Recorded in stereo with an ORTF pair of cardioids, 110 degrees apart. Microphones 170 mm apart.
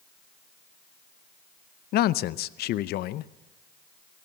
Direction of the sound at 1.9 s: 65° left.